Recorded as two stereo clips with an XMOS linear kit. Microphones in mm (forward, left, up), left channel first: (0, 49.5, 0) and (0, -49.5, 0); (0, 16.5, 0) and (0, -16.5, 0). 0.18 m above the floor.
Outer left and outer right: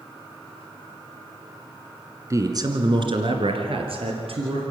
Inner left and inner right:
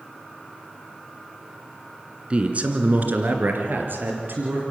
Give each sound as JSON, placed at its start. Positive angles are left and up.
{"t": 2.3, "sound": "a man speaking", "side_deg": -30, "distance_m": 2.0}